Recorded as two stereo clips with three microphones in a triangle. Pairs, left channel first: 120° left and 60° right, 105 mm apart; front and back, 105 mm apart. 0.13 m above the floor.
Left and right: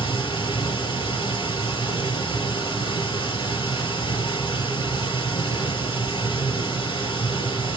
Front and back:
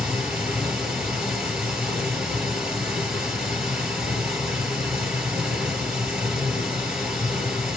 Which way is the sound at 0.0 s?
100° left.